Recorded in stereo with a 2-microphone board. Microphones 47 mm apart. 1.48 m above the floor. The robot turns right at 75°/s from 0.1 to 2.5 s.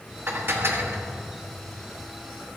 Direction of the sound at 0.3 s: 120° right.